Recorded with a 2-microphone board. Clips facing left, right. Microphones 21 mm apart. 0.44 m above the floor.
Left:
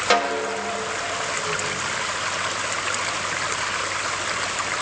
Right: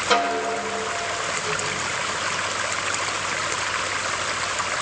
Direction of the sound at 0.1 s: 40° left (ahead or behind).